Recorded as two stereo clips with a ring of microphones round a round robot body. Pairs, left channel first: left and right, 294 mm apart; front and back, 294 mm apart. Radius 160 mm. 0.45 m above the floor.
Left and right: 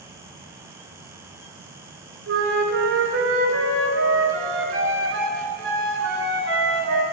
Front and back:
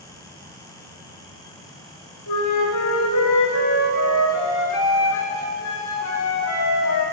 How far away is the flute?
About 2 m.